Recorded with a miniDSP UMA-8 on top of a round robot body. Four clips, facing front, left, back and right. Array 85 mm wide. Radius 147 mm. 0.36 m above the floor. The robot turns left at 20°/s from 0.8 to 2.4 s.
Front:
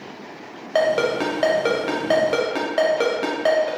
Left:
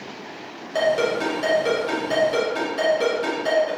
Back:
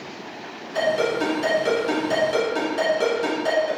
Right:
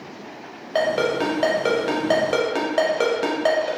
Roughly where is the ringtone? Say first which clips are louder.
Even, front 3 dB; ahead.